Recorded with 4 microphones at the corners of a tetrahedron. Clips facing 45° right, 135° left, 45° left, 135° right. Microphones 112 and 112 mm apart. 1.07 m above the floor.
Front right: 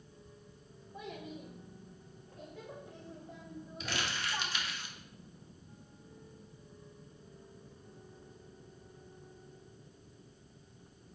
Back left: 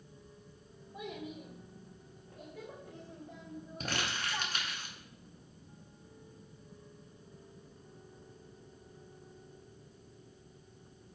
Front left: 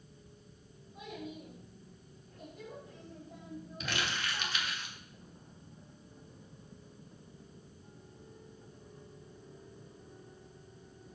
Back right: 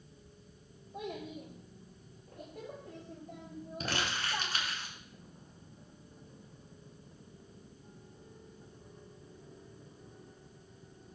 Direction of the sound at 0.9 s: 145° right.